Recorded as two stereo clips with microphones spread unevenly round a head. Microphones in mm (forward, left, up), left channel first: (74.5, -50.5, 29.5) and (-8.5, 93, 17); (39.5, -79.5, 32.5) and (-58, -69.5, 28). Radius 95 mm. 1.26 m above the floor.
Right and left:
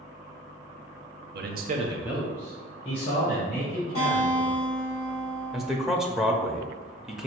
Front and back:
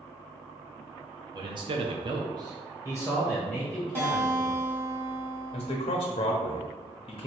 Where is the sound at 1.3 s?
120° left, 0.7 m; by 4.6 s 110° right, 3 m.